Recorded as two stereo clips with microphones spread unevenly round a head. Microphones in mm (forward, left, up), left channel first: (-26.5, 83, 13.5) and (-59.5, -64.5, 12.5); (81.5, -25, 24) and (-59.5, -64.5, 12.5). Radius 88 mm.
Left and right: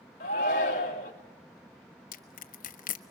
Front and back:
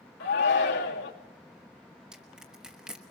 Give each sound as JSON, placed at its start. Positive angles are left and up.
{"t": 0.2, "sound": "a shout", "azimuth_deg": 25, "distance_m": 2.5}
{"t": 2.1, "sound": "crushing", "azimuth_deg": 110, "distance_m": 1.0}